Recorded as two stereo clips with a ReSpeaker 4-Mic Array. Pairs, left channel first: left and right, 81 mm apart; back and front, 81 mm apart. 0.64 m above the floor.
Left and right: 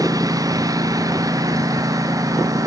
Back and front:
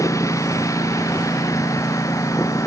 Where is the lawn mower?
130° right; by 2.7 s 135° right.